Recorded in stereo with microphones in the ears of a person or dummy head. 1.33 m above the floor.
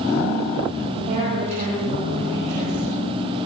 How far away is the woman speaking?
About 7 m.